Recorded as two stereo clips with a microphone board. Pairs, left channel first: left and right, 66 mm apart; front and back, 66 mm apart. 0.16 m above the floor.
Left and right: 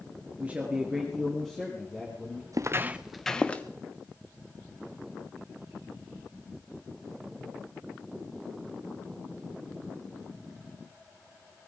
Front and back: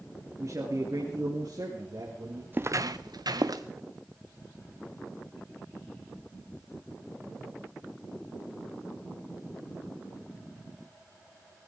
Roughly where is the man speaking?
Behind right.